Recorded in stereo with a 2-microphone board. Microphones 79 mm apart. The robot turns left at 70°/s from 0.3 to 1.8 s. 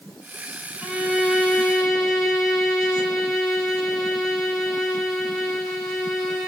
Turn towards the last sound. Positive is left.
turn(degrees=-5)  # may be behind; listen again after turning